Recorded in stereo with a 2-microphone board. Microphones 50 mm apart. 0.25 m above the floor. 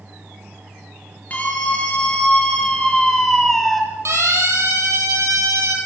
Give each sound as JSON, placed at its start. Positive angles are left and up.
{"t": 1.3, "sound": "a scream", "side_deg": 30, "distance_m": 4.5}
{"t": 4.0, "sound": "a siren", "side_deg": -65, "distance_m": 6.0}